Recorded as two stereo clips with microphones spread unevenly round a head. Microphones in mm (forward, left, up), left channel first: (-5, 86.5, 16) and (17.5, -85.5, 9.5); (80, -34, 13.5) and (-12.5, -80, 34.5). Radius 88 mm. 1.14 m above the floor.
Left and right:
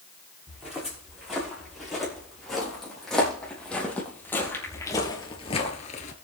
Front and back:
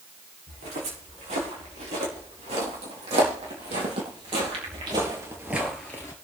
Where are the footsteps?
170° right, 6.5 m; by 6.1 s 100° left, 1.4 m.